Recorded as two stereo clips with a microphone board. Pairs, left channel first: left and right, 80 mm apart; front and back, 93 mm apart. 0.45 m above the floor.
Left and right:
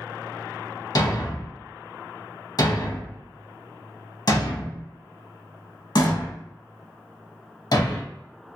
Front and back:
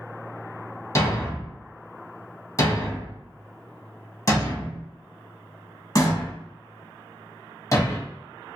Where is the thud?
55° left, 0.7 m.